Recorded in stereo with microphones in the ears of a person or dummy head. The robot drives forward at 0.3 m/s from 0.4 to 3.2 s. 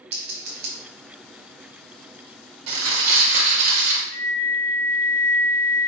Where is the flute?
15° left (ahead or behind), 2 m.